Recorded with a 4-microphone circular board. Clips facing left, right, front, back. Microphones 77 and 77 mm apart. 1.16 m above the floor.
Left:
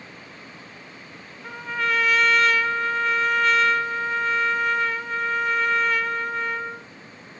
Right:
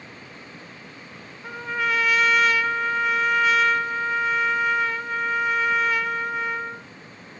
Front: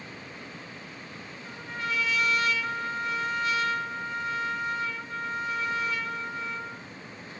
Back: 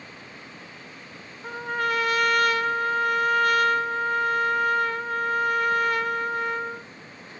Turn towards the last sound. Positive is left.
turn(degrees=-175)